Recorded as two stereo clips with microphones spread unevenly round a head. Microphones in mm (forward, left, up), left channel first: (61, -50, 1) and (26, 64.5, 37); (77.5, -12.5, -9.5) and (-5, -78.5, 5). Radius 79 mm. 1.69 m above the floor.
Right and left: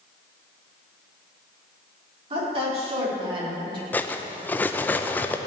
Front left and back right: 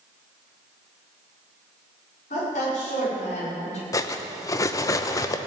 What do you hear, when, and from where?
2.3 s a woman speaking: 70° left, 5.5 m; by 3.8 s 55° left, 4 m
3.9 s cutlery clinking: 25° left, 0.7 m